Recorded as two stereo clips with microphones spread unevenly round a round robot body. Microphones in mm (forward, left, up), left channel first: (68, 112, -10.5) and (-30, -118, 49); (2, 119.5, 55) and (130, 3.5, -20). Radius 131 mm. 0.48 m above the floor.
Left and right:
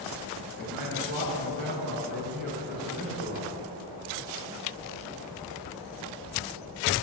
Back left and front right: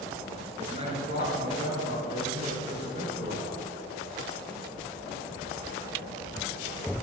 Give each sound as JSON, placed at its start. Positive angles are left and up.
{"t": 0.6, "sound": "a man speaking", "azimuth_deg": -160, "distance_m": 5.5}